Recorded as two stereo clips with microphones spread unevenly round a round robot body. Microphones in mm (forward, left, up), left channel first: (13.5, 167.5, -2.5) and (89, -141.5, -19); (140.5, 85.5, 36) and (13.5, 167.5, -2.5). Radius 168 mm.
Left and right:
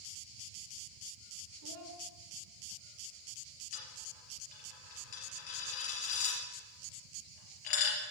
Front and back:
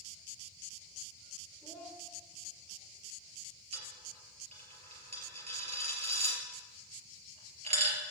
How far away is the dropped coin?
About 3.5 m.